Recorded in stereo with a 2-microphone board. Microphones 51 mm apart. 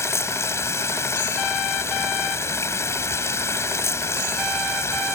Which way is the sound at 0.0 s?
65° left (ahead or behind).